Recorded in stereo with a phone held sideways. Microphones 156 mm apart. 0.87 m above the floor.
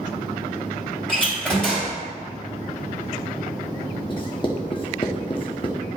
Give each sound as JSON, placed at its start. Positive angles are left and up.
{"t": 1.1, "sound": "a door slam", "side_deg": 5, "distance_m": 3.0}
{"t": 4.1, "sound": "writing", "side_deg": 35, "distance_m": 1.1}